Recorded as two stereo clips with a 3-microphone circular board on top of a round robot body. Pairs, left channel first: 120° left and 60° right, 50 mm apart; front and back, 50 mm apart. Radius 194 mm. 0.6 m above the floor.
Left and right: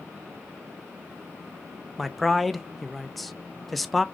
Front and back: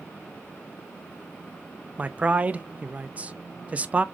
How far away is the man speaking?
About 0.6 m.